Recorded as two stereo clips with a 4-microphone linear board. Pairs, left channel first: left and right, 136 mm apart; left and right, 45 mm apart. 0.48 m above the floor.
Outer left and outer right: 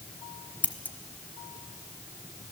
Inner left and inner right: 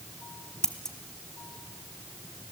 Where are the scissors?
10° left (ahead or behind), 1.2 m.